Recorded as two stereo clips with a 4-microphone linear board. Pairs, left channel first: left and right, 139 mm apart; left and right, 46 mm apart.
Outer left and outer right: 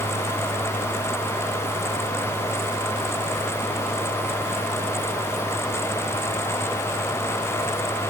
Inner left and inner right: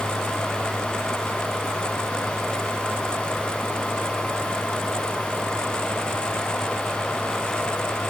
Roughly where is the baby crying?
No baby crying in this recording.